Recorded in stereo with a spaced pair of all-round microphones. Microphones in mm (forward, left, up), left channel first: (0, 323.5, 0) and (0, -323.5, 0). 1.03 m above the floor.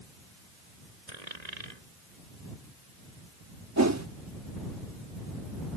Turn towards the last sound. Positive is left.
turn(degrees=-25)  # may be behind; listen again after turning